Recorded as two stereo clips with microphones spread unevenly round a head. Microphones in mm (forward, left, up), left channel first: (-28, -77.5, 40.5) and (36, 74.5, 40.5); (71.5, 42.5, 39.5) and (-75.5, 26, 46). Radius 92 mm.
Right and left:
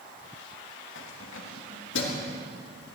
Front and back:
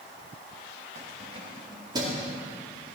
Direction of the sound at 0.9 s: 120° right.